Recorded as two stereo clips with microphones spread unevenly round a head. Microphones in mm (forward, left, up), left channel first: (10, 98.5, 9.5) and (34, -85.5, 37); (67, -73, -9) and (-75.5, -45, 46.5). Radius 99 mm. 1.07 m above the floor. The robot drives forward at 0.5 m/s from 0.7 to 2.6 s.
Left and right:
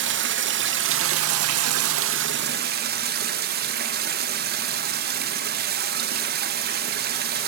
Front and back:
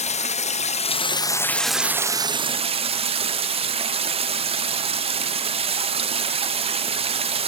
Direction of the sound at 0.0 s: 50° right.